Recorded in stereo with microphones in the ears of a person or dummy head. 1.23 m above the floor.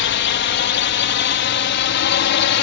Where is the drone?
55° left (ahead or behind); by 2.6 s 60° left (ahead or behind).